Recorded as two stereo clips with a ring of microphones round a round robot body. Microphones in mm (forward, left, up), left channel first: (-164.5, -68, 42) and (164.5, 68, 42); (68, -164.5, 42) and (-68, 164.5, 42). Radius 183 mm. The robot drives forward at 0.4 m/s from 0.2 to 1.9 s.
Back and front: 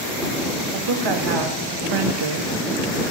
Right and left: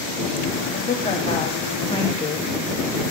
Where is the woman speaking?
5° left, 1.5 m; by 3.0 s 10° left, 1.1 m.